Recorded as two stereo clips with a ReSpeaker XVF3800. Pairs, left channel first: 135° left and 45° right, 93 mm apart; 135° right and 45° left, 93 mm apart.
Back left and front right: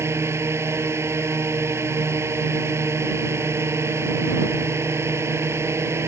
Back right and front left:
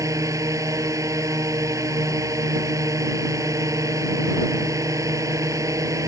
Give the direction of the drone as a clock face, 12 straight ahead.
12 o'clock.